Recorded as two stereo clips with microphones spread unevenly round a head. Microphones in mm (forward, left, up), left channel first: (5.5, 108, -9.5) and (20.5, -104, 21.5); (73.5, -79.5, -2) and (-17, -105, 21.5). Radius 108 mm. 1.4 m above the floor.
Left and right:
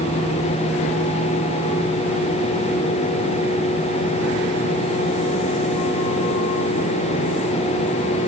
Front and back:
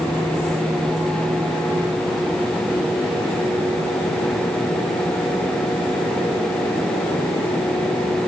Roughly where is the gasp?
I don't hear a gasp.